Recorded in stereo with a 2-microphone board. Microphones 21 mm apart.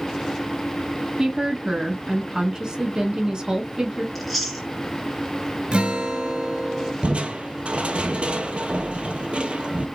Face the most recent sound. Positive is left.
turn(degrees=-80)